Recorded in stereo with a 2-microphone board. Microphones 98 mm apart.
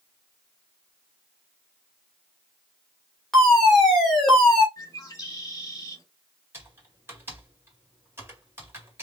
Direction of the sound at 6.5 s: 25° right (ahead or behind).